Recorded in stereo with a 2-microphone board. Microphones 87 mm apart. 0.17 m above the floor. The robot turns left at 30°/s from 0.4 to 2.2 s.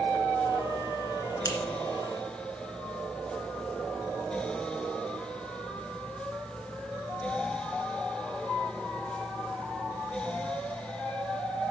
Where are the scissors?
40° left (ahead or behind), 2 m.